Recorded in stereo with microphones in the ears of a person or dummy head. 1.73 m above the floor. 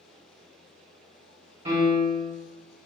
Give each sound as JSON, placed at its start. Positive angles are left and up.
{"t": 1.6, "sound": "a piano", "side_deg": -30, "distance_m": 1.4}